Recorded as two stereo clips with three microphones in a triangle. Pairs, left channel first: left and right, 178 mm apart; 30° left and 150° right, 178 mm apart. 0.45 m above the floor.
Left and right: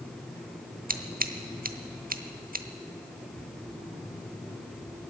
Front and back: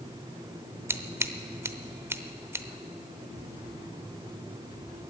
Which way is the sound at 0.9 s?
75° right.